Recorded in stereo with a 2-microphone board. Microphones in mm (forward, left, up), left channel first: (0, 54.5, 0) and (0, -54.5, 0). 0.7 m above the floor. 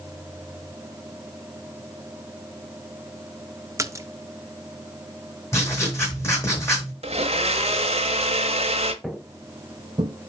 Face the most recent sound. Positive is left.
turn(degrees=-60)  # may be behind; listen again after turning